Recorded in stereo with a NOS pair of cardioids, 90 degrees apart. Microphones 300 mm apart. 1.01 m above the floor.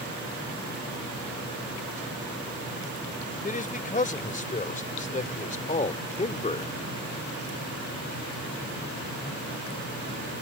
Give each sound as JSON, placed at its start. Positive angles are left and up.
{"t": 3.4, "sound": "a man speaking", "azimuth_deg": 25}